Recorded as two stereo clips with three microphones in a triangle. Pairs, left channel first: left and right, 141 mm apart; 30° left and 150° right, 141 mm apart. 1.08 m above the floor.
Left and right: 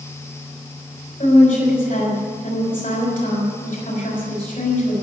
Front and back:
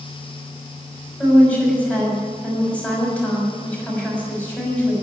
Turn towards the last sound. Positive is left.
turn(degrees=110)